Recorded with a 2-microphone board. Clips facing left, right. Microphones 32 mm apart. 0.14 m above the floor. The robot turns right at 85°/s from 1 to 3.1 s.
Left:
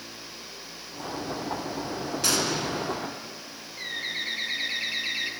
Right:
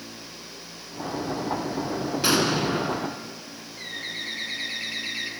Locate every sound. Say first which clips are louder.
2.2 s an explosion: right 5 dB; 140° right, 0.6 m; by 3.4 s 65° right, 0.6 m
3.8 s a bird: left 2 dB; 15° left (ahead or behind), 0.6 m